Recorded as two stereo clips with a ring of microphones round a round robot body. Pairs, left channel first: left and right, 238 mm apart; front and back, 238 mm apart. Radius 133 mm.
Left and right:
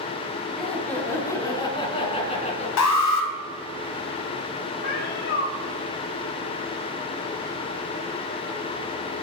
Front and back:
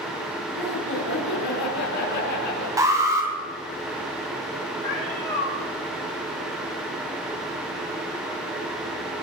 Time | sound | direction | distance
0.6 | laughter | straight ahead | 4.5 m
2.8 | an alarm | 100° left | 2.5 m
4.8 | a cat meowing | 70° left | 6.5 m